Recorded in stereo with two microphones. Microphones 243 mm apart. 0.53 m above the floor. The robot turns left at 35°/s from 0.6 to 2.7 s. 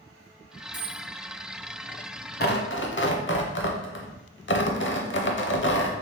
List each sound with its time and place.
0.7 s a dropped coin: 75° right (ahead or behind), 1.0 m
2.4 s tearing paper: 40° left (ahead or behind), 0.7 m; by 5.9 s 50° left (ahead or behind), 0.7 m